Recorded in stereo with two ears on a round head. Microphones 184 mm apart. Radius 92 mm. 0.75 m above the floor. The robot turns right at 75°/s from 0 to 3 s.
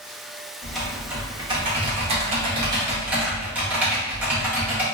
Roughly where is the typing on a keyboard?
Behind.